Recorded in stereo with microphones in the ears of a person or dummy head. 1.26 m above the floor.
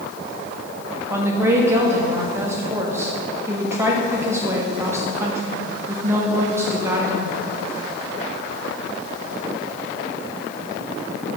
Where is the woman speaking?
15° right (ahead or behind), 1.0 m.